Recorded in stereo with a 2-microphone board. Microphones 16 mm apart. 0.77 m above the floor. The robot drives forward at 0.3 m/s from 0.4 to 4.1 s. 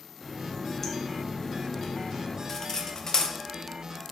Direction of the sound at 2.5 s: 35° left (ahead or behind).